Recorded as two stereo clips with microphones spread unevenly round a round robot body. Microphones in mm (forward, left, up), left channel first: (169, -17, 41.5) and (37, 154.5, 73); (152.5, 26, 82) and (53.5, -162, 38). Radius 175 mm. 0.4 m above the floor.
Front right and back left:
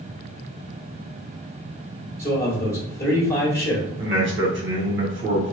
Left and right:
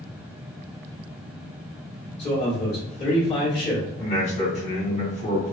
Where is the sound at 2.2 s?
5° left, 1.4 m.